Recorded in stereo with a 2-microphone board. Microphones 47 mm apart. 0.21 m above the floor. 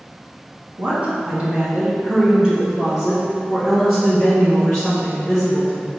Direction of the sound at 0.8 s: 35° right (ahead or behind).